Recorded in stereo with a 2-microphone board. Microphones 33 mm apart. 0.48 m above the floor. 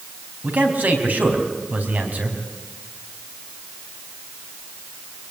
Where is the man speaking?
60° right (ahead or behind), 4.5 m.